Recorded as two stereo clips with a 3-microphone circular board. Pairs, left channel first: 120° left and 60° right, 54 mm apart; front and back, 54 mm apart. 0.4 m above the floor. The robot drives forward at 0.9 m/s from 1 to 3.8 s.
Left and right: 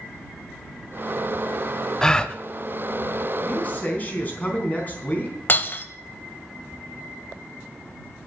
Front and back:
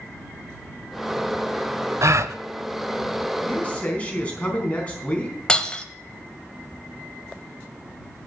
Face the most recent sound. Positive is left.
turn(degrees=70)